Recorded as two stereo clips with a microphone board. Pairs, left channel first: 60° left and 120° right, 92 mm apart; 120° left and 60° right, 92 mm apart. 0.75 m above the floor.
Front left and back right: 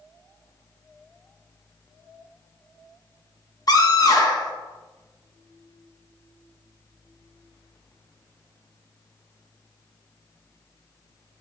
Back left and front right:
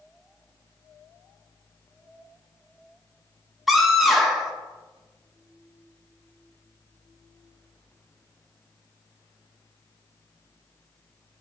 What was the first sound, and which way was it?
A scream, 30° left.